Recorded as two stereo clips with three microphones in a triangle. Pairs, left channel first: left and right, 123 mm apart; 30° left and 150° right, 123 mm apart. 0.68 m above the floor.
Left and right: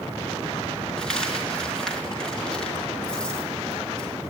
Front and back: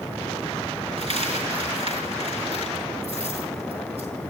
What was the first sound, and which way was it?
A dropped coin, 175° left.